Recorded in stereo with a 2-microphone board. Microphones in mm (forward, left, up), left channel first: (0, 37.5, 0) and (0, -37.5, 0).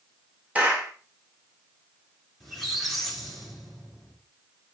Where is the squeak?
Centre (ahead or behind), 2.5 m.